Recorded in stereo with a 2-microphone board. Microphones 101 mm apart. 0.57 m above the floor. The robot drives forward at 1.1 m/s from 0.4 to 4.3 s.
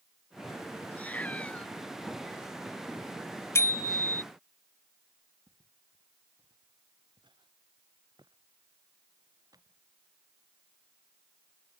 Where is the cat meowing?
15° left (ahead or behind); by 1.7 s 10° left (ahead or behind).